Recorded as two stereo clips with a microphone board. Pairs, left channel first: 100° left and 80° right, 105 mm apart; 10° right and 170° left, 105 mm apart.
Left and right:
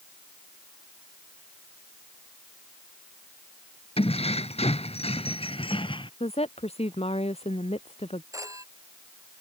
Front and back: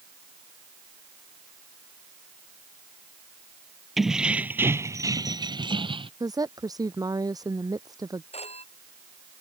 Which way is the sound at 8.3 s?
20° right.